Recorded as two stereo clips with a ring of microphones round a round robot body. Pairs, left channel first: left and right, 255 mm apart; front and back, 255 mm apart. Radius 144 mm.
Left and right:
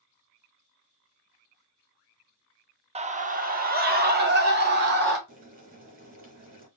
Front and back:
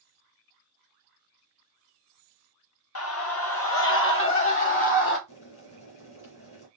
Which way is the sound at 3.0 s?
25° right.